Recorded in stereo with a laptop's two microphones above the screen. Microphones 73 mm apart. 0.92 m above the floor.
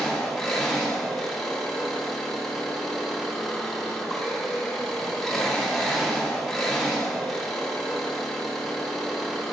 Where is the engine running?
Centre (ahead or behind), 1.3 m.